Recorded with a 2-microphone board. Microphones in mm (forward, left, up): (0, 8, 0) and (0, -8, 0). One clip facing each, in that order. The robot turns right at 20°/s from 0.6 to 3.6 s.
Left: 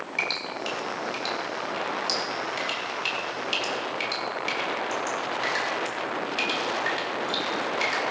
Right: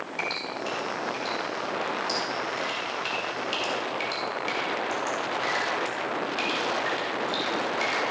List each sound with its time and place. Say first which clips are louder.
0.2 s dripping: left 2 dB; 70° left (ahead or behind), 2.5 m; by 8.1 s 20° left (ahead or behind), 2.5 m